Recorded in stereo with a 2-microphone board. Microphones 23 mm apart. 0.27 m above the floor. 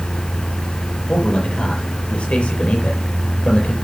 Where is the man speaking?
80° left, 7 m.